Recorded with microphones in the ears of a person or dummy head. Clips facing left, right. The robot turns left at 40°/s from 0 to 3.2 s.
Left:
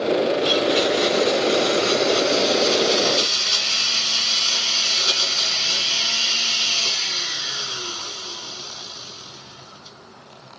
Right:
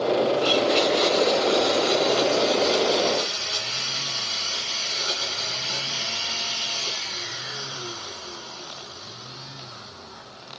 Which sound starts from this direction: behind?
A blender, at 0.4 s.